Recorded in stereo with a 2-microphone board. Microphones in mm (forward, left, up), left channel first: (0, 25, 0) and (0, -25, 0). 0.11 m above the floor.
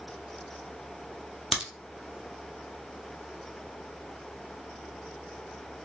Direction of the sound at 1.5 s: Centre (ahead or behind).